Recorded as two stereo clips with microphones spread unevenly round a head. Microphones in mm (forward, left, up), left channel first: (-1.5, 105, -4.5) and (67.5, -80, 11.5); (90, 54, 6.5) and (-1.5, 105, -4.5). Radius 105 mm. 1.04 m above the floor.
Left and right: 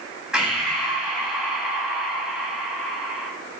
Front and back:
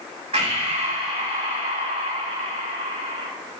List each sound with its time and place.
0.3 s breathing: 155° right, 1.9 m